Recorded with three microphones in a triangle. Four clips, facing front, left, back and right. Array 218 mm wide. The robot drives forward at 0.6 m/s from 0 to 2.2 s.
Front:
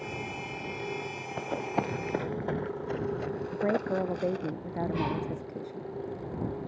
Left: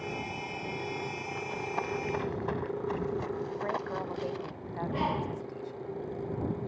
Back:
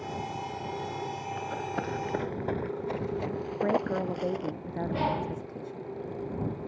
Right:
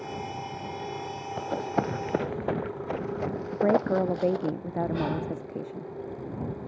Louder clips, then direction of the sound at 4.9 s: Right 2 dB, back 5 dB; 170° right.